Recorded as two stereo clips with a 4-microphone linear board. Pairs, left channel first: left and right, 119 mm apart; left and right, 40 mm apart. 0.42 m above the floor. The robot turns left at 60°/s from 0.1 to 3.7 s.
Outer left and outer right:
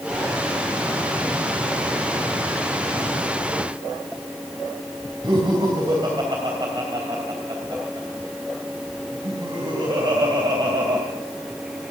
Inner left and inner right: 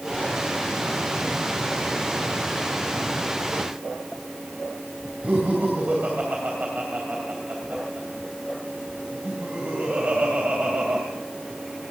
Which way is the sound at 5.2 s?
40° right (ahead or behind).